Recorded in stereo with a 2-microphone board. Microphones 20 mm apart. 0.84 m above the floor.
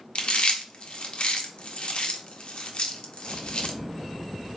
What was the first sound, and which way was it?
Chewing, 60° left (ahead or behind).